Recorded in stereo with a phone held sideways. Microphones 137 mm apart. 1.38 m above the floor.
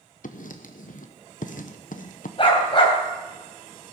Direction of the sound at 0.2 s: 75° left (ahead or behind).